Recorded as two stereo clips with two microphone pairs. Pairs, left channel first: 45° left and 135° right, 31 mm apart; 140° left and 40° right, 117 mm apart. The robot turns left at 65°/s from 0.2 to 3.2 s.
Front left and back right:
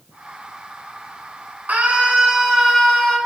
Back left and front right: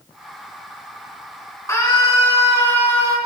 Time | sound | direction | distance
1.7 | a scream | 160° right | 4 m